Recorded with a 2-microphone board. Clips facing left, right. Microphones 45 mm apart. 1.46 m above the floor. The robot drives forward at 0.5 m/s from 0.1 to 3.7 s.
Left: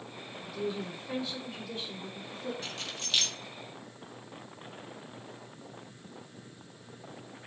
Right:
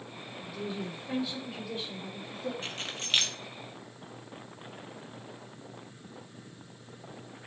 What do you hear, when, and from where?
0.5 s a woman speaking: 5° right (ahead or behind), 5 m; by 2.5 s 10° right (ahead or behind), 4 m
2.6 s keys jangling: 40° right (ahead or behind), 1.8 m; by 3.4 s 45° right (ahead or behind), 1.6 m